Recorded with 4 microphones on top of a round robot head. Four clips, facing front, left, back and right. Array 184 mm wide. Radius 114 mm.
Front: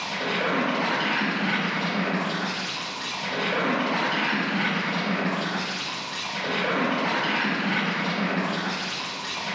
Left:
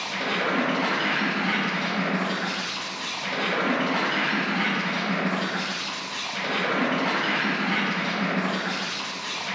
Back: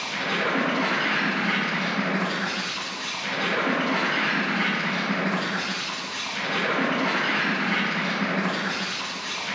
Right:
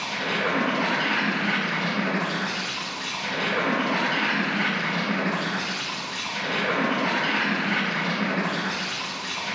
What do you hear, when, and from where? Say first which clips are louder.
0.0 s an insect: even, even; 35° left, 0.8 m